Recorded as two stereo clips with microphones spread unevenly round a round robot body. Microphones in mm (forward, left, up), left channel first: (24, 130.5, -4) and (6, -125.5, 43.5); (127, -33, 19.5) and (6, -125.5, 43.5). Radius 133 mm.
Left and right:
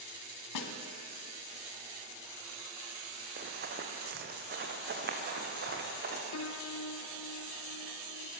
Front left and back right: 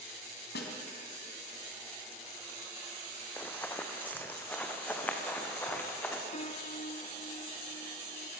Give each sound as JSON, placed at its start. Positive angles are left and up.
{"t": 0.6, "sound": "a snare drum", "azimuth_deg": 80, "distance_m": 3.0}
{"t": 3.4, "sound": "running footsteps", "azimuth_deg": -45, "distance_m": 3.0}
{"t": 6.3, "sound": "a piano", "azimuth_deg": 85, "distance_m": 1.4}